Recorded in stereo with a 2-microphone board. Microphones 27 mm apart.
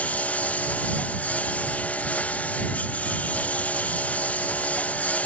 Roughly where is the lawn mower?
Left.